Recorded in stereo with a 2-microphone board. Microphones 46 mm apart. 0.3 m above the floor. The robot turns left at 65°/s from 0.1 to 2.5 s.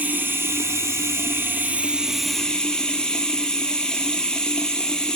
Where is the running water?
40° right, 0.9 m; by 5.2 s 165° left, 0.9 m.